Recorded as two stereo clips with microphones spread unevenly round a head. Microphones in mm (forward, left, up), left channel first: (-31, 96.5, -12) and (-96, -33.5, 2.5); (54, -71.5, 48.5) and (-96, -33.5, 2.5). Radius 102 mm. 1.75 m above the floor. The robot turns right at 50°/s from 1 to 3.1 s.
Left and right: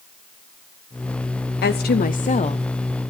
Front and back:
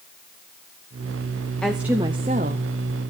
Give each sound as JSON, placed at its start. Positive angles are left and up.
{"t": 1.6, "sound": "a woman speaking", "azimuth_deg": 65, "distance_m": 0.7}